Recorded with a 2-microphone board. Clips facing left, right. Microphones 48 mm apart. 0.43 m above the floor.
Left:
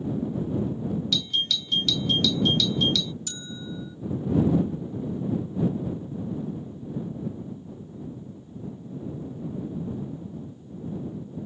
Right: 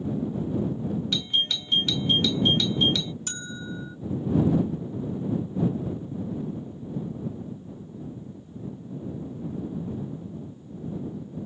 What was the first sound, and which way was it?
A doorbell, 30° right (ahead or behind).